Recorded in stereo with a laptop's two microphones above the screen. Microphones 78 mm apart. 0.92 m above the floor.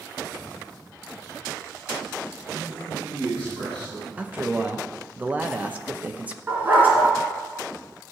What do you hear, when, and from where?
2.5 s a man speaking: 25° right (ahead or behind), 6.5 m
4.2 s a man speaking: 20° right (ahead or behind), 0.9 m
6.5 s a dog barking: 25° right (ahead or behind), 3 m